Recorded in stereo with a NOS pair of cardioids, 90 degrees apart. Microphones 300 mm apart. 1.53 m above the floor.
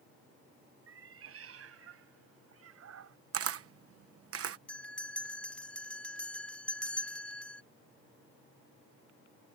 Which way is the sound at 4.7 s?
5° left.